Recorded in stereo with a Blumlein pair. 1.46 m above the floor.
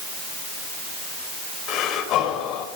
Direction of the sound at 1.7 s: 35° left.